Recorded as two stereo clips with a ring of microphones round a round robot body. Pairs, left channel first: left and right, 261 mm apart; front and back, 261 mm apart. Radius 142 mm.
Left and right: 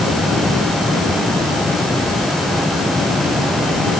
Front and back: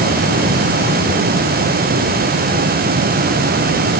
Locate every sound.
Only background noise.